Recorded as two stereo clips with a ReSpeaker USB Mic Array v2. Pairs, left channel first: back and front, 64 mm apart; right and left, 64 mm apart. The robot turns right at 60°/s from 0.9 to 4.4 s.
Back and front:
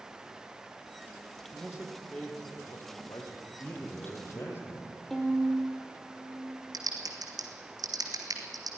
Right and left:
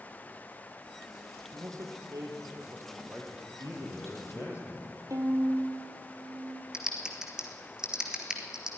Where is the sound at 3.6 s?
100° left, 4 m; by 5.0 s 150° left, 4 m.